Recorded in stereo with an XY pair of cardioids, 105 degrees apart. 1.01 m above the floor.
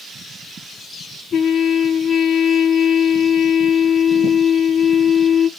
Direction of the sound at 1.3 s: 60° left.